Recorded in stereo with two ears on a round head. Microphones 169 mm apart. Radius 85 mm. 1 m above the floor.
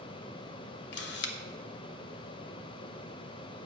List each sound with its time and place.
0.9 s a camera shutter: 60° left (ahead or behind), 0.9 m